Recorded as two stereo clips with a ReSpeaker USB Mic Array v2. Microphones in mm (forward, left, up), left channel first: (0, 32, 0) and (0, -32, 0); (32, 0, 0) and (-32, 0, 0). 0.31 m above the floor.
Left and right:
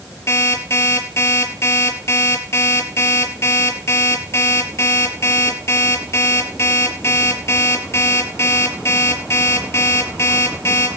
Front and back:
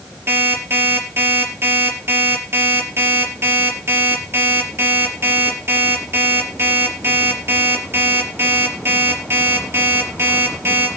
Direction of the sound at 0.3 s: 135° left.